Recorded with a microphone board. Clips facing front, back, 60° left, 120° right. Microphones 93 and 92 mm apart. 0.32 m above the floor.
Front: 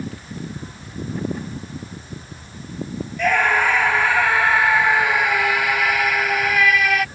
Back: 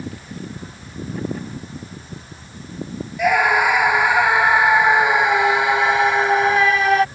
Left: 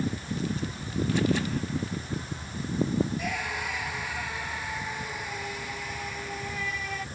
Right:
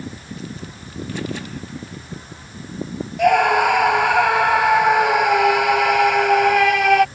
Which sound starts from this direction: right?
A scream, at 3.2 s.